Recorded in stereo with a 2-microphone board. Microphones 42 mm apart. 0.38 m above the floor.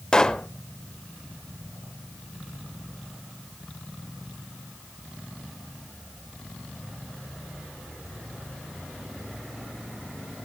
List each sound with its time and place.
0.1 s a pop: 20° left (ahead or behind), 0.7 m